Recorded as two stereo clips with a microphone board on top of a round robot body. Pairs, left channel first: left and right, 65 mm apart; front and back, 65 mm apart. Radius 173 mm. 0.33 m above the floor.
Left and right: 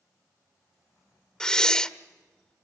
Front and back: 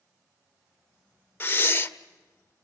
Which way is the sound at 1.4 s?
20° left.